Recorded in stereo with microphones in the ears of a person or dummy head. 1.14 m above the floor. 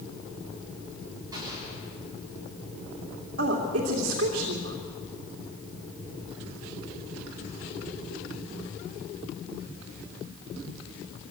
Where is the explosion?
20° right (ahead or behind), 9.5 m.